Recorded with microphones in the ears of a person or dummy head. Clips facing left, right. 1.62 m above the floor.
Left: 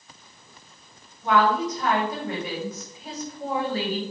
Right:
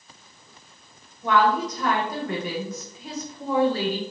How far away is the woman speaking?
About 1.8 m.